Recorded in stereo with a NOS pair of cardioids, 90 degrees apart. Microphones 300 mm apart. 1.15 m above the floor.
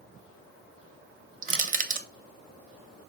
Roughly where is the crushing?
Ahead right.